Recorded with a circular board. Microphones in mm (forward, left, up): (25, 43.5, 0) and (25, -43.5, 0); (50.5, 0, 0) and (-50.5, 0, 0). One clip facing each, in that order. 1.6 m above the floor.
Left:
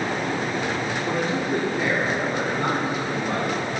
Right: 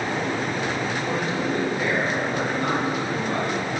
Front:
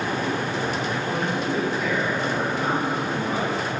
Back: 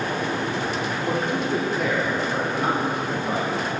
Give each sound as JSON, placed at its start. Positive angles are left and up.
{"t": 1.1, "sound": "a man speaking", "azimuth_deg": 150, "distance_m": 4.5}